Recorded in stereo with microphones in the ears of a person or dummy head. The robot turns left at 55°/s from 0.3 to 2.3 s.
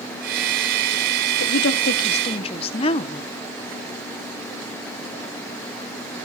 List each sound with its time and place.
1.4 s a woman speaking: 85° left, 0.9 m; by 3.3 s 35° left, 0.9 m